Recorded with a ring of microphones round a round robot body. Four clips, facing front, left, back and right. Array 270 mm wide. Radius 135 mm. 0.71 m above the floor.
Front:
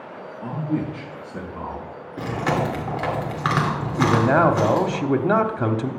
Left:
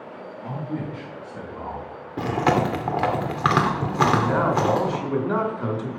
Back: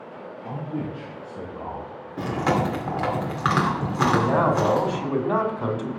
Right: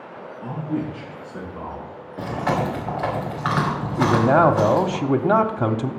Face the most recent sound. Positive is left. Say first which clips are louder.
# right 5 dB, front 3 dB
turn(degrees=-60)